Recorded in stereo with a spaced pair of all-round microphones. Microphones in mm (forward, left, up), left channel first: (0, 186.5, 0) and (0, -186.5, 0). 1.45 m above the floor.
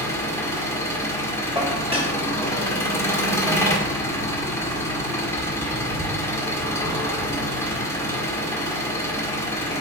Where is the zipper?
I don't hear a zipper.